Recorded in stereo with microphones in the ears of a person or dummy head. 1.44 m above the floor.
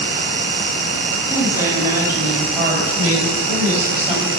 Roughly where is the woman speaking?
Centre.